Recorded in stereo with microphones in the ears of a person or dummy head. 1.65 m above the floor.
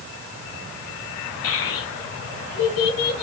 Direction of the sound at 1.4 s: 70° left (ahead or behind).